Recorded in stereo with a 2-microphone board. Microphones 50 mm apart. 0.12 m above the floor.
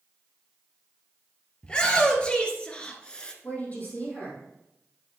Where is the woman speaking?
35° left (ahead or behind), 3.5 m.